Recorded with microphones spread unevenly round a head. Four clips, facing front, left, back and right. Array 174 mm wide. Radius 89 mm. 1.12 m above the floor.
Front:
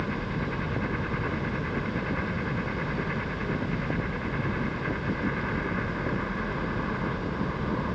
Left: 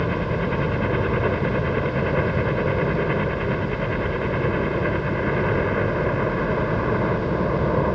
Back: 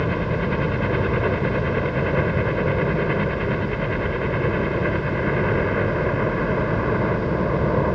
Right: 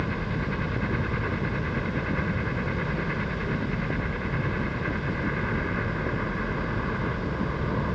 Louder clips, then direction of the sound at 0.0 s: Left 7 dB, back 8 dB; 140° left.